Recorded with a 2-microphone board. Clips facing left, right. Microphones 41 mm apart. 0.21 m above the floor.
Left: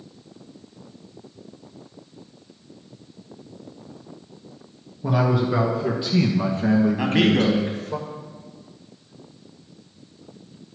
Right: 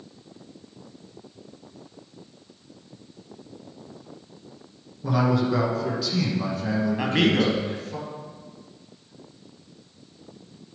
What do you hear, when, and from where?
5.0 s a man speaking: 10° left (ahead or behind), 3 m; by 8.0 s 60° left (ahead or behind), 2.5 m
7.0 s a man speaking: centre (ahead or behind), 1.1 m